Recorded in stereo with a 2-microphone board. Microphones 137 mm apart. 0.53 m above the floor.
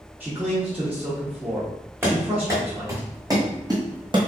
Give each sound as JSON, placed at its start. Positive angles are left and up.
{"t": 0.2, "sound": "a man speaking", "side_deg": -10, "distance_m": 1.1}
{"t": 2.0, "sound": "running footsteps", "side_deg": -15, "distance_m": 2.0}